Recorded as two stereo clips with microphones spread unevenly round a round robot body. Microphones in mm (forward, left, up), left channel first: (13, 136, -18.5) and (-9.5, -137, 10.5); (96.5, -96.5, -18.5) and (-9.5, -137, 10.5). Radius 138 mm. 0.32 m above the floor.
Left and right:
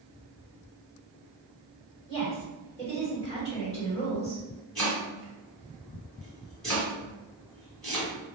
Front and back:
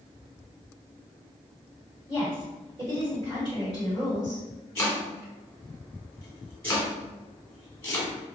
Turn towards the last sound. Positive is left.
turn(degrees=10)